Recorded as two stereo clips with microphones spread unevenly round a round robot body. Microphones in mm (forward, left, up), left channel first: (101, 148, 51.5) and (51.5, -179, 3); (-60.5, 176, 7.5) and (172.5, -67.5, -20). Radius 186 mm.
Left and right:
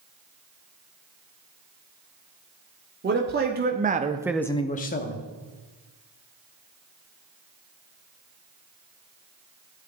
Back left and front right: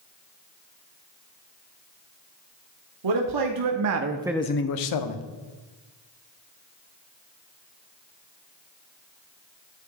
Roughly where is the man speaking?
Ahead right.